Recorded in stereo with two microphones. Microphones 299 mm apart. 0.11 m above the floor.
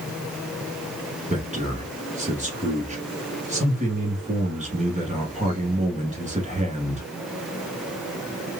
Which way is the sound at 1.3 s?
25° right (ahead or behind).